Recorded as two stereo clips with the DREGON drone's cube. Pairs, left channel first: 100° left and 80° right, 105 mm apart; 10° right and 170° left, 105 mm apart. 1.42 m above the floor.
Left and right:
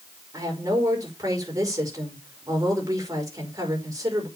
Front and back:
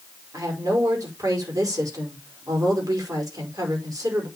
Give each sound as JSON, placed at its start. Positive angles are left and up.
{"t": 0.3, "sound": "a woman speaking", "azimuth_deg": -135, "distance_m": 5.0}